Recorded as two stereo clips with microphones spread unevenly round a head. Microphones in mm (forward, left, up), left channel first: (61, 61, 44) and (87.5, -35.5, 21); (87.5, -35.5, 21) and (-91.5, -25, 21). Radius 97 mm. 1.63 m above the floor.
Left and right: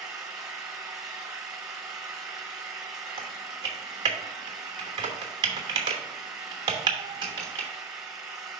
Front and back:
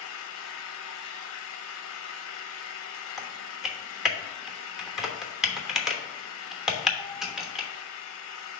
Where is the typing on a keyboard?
100° right, 1.0 m.